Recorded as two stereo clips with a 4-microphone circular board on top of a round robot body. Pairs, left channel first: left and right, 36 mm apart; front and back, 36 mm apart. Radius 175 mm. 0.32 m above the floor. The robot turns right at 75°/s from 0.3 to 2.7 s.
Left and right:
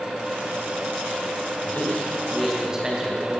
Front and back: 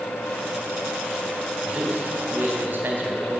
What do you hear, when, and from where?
1.6 s a man speaking: 120° left, 3.5 m; by 3.4 s 160° right, 3.5 m